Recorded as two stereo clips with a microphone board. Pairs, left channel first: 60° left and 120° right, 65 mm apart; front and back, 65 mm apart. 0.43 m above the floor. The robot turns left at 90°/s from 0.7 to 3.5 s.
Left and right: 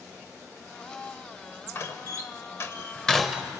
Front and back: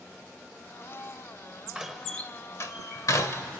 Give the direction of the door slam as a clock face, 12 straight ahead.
9 o'clock.